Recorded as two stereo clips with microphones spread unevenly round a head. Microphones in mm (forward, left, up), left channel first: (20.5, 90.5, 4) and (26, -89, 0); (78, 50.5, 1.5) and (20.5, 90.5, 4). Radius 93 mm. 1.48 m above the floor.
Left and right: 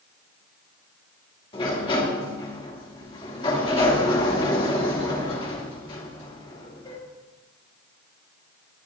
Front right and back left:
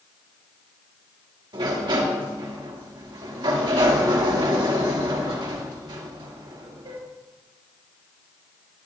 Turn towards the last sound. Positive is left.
turn(degrees=155)